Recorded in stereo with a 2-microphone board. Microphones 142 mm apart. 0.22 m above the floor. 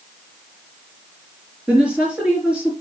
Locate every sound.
1.7 s a woman speaking: 10° right (ahead or behind), 3.5 m